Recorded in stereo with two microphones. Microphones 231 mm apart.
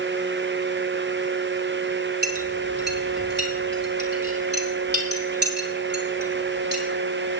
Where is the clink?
45° right (ahead or behind), 4 m.